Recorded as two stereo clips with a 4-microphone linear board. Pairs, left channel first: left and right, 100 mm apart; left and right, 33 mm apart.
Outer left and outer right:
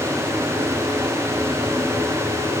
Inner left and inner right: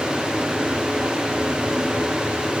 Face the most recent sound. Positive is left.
No sound to turn to.